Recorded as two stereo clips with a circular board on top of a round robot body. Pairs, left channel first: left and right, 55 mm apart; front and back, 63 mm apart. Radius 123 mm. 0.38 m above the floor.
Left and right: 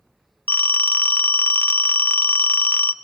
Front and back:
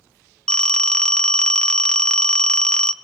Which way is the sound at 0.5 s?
65° left.